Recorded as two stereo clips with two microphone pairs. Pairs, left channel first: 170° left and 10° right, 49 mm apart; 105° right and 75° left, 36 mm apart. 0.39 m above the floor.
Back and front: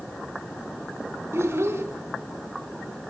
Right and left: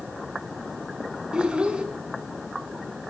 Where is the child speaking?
15° left, 3 m.